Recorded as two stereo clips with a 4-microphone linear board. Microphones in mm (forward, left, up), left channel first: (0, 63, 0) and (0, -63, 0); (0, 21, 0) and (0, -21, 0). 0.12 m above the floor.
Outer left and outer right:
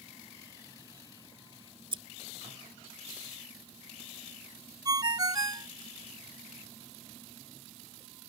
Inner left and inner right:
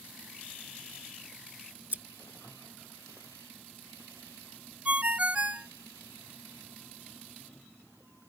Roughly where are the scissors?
Right.